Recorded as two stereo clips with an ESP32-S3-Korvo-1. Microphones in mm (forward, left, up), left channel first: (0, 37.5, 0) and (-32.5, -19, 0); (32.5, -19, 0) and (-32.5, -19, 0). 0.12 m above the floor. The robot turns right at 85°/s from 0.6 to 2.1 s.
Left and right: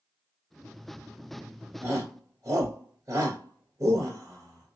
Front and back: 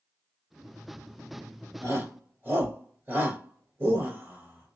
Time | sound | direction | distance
1.8 | a shout | 160° right | 1.7 m